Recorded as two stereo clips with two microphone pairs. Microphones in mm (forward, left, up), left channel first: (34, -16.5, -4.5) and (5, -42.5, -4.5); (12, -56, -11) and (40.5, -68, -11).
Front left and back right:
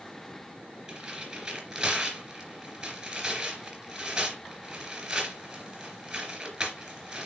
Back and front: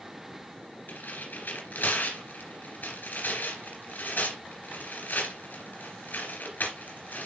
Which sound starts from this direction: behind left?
Tearing paper, at 0.9 s.